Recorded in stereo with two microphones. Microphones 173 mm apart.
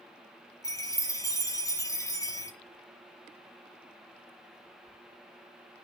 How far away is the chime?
About 1.6 m.